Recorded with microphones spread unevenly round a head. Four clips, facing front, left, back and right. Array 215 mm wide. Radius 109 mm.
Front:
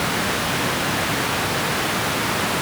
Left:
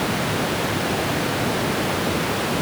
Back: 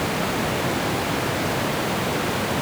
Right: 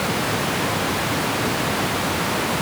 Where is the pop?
I don't hear a pop.